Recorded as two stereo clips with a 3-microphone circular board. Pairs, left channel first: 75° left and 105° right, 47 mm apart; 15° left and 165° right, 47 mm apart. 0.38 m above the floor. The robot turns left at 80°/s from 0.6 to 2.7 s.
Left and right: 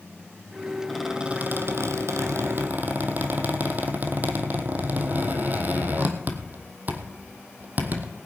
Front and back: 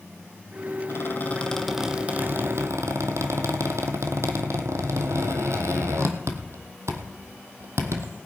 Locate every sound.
0.9 s a squeak: 10° right, 1.5 m; by 8.1 s 155° right, 1.5 m